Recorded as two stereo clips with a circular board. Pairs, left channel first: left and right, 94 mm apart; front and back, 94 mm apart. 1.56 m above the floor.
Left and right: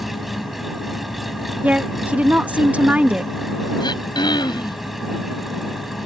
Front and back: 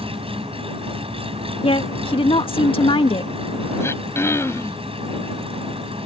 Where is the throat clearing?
60° left.